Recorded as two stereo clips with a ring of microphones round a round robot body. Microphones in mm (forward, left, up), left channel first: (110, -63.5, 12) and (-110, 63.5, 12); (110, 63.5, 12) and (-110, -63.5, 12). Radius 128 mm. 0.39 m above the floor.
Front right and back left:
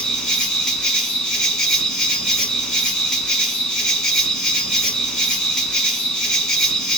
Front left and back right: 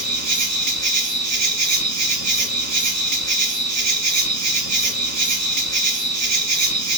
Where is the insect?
120° right, 0.9 m.